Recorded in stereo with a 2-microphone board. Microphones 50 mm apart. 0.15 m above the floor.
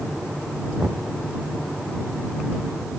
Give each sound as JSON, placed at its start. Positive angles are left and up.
{"t": 0.8, "sound": "knocking", "side_deg": -40}